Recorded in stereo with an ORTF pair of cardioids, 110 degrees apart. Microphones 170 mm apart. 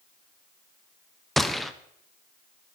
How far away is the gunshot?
About 0.9 m.